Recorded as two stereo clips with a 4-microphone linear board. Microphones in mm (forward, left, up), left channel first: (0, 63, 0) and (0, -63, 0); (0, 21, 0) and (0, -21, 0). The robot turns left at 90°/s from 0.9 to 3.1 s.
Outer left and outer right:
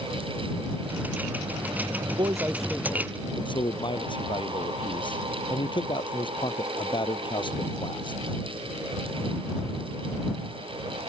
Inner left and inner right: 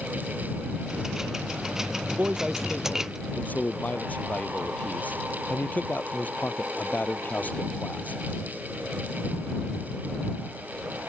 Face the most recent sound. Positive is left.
turn(degrees=140)